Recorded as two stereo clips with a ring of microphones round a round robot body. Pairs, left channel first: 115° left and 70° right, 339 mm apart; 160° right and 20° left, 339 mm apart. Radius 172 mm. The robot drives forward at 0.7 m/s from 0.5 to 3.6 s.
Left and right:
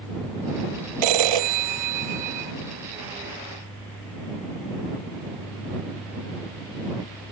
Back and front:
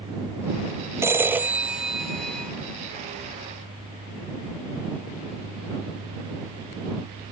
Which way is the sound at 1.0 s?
60° right.